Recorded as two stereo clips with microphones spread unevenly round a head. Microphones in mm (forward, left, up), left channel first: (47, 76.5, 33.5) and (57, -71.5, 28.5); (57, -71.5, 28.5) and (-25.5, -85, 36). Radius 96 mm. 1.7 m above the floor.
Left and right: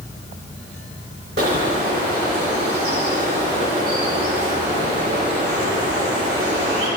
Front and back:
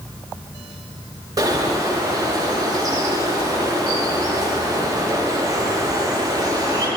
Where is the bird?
130° right, 3.5 m.